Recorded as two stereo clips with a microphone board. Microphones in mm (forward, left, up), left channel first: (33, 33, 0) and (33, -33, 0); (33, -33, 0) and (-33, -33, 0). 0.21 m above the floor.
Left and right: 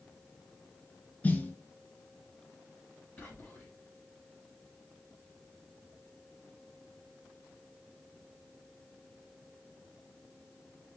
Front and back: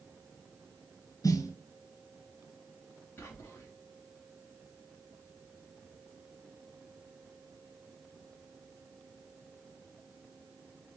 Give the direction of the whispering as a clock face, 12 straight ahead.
11 o'clock.